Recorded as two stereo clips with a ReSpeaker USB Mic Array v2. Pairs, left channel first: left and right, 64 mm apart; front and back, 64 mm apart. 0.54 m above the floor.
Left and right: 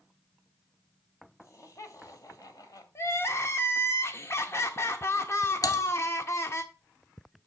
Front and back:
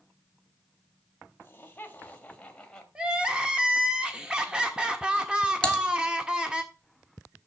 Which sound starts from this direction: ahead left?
Laughter, at 1.4 s.